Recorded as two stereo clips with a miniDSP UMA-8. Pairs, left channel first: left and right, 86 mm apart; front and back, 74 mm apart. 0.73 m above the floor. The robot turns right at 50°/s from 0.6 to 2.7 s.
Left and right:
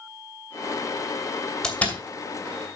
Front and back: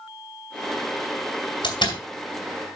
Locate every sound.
1.6 s a door slam: 5° left, 3 m; by 2.0 s 25° left, 3 m